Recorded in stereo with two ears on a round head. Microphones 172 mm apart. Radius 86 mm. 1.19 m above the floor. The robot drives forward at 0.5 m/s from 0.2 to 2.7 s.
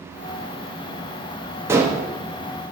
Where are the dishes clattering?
15° right (ahead or behind), 0.8 m.